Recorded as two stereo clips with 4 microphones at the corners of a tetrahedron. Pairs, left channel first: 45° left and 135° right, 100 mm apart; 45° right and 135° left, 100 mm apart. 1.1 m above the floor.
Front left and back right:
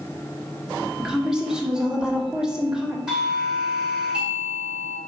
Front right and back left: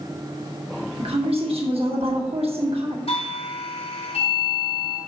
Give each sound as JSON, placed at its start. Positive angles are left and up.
{"t": 1.0, "sound": "a woman speaking", "azimuth_deg": 140, "distance_m": 1.7}
{"t": 3.1, "sound": "a doorbell", "azimuth_deg": -55, "distance_m": 2.0}